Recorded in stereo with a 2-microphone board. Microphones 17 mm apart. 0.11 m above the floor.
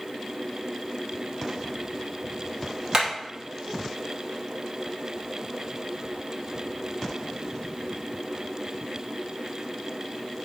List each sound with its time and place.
2.9 s hammering: 40° right (ahead or behind), 3 m